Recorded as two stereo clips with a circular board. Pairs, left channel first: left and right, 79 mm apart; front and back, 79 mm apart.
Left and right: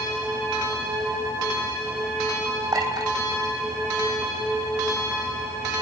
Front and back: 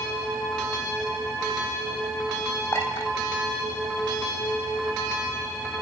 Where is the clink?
65° right, 4 m.